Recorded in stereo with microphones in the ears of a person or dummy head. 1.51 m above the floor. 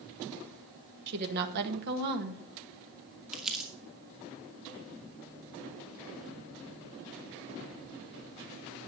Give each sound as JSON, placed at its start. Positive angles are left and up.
{"t": 1.1, "sound": "a woman speaking", "side_deg": -60, "distance_m": 1.8}
{"t": 3.3, "sound": "crumpling", "side_deg": 0, "distance_m": 2.5}